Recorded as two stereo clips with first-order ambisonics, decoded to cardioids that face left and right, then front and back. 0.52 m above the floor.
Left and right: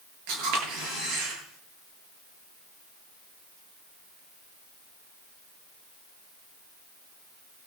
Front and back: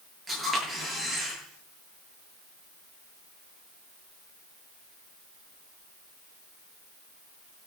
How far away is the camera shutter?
About 8.5 m.